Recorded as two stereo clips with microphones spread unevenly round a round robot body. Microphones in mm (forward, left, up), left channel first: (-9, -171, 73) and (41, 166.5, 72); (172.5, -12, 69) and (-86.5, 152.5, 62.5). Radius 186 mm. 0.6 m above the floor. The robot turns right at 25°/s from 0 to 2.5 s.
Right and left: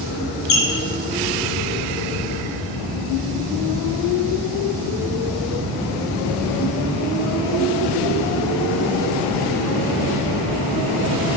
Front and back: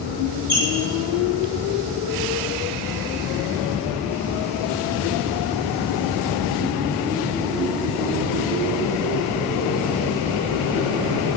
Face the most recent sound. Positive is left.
turn(degrees=-70)